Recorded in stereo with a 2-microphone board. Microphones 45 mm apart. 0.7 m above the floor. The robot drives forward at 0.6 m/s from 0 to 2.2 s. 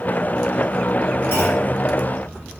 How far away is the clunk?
About 4 m.